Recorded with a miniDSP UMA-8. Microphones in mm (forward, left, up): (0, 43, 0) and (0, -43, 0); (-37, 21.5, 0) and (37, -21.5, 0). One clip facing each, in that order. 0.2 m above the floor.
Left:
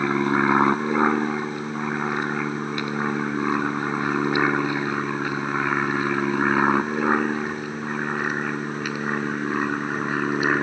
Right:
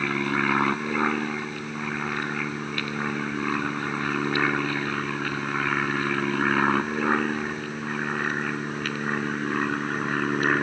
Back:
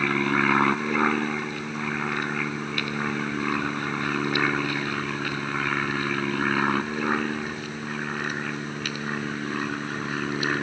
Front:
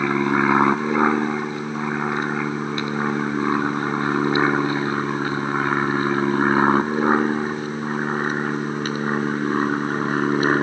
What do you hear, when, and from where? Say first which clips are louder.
0.0 s an aircraft: left 5 dB, front 4 dB; 35° left; by 10.6 s 10° left